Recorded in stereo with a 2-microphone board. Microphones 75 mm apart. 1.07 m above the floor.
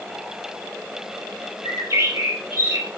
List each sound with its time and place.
1.6 s a bird: 35° right (ahead or behind), 4.5 m